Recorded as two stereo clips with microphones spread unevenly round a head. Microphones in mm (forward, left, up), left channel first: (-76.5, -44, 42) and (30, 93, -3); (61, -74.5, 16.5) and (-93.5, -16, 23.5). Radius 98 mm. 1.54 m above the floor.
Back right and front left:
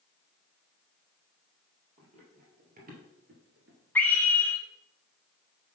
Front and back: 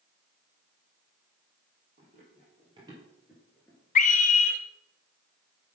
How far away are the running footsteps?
About 3 m.